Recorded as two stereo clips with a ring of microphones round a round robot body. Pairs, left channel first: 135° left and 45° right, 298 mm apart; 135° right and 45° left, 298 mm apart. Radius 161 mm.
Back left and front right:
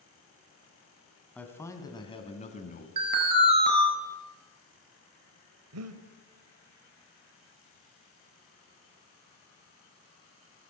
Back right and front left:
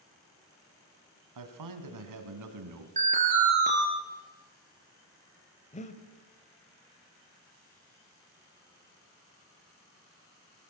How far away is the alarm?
About 4.5 m.